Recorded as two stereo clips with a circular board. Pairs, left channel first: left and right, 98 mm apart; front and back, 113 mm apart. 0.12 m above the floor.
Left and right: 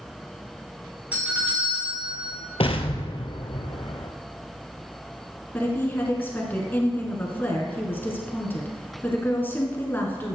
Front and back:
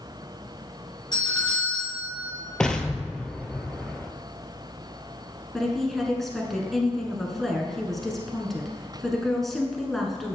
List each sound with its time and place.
1.1 s a doorbell: 20° right, 3 m
2.6 s an explosion: 85° left, 0.7 m
5.5 s a woman speaking: 85° left, 1.2 m